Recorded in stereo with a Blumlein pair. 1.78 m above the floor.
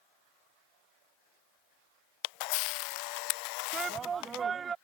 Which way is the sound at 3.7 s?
20° right.